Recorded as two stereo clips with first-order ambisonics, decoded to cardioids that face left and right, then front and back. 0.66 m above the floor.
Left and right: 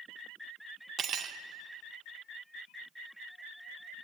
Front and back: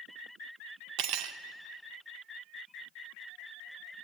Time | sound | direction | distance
1.0 | cutlery clinking | 155° right | 0.6 m